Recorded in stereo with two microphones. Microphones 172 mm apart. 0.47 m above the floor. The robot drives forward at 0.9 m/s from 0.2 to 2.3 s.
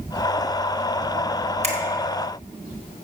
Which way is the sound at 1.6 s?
45° right (ahead or behind).